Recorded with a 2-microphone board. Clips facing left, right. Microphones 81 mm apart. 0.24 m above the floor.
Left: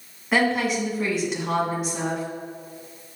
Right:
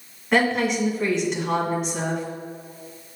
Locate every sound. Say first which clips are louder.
0.3 s a woman speaking: right 1 dB; 5° left (ahead or behind), 1.9 m